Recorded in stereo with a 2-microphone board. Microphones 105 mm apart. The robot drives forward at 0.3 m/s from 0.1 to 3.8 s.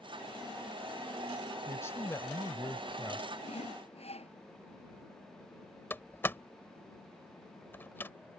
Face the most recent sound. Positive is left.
turn(degrees=20)  # may be behind; listen again after turning